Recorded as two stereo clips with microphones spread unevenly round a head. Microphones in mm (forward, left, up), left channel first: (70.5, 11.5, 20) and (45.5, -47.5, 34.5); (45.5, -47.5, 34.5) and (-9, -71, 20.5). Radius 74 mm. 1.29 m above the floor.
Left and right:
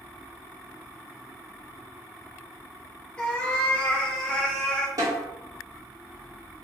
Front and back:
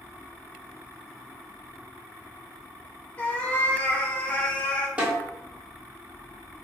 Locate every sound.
3.2 s a cat meowing: 15° right, 0.7 m
5.0 s a snare drum: 90° right, 1.7 m